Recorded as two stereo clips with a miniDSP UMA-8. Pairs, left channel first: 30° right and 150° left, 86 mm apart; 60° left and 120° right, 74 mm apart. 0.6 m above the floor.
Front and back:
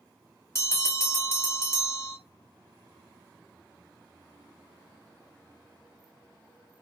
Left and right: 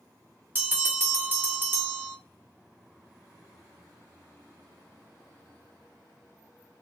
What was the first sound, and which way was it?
A bell, 70° right.